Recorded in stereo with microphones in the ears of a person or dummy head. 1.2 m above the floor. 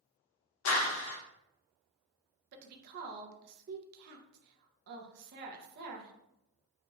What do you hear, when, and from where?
0.7 s a clap: 70° left (ahead or behind), 0.7 m
2.5 s a woman speaking: 55° right (ahead or behind), 0.7 m